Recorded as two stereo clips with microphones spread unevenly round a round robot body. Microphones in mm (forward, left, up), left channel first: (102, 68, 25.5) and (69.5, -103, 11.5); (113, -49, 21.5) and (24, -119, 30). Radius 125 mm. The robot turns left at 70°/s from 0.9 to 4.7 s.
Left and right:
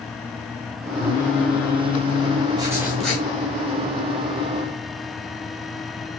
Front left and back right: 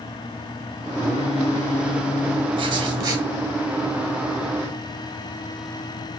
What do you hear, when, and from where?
1.0 s singing: 105° left, 3.5 m; by 2.5 s 5° left, 3.5 m
2.6 s writing: 155° right, 1.6 m; by 3.2 s 160° left, 1.6 m